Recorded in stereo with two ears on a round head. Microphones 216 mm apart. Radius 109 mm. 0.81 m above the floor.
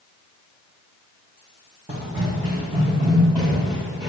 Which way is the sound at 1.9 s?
20° right (ahead or behind).